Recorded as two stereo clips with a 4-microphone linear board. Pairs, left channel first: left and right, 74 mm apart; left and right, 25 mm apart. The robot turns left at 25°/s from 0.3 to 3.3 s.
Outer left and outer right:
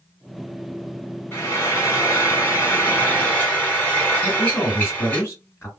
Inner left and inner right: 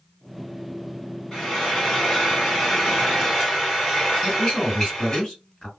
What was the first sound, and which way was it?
Frying, 30° left (ahead or behind).